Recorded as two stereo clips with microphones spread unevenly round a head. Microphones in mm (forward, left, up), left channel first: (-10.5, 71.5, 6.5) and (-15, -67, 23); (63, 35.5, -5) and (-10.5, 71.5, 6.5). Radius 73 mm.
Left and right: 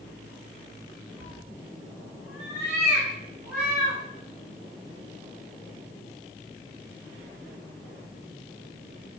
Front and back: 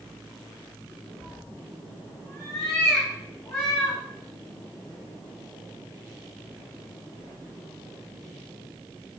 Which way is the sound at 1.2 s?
10° right.